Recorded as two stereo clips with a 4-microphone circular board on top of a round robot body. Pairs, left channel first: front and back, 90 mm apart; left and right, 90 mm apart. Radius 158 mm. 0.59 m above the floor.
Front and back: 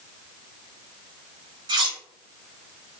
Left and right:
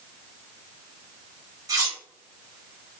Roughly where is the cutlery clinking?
Behind right.